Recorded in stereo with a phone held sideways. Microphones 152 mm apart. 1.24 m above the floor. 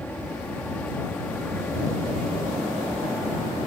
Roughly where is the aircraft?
Centre.